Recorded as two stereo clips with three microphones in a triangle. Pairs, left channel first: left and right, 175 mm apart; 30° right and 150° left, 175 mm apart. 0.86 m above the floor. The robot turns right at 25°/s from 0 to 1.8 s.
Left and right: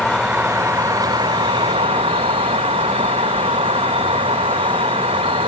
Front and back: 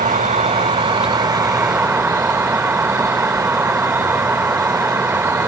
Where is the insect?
Straight behind, 0.8 m; by 5.5 s 135° right, 0.8 m.